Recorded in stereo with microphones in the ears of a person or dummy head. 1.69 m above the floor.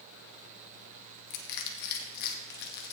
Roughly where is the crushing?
Left.